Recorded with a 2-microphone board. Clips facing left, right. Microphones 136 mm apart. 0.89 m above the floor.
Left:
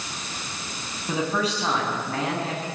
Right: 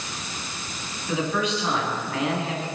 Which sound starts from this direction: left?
A man speaking, at 1.1 s.